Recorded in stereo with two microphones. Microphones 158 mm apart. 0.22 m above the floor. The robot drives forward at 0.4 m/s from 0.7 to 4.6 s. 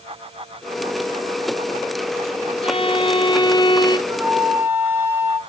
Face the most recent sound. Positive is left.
turn(degrees=-15)  # may be behind; listen again after turning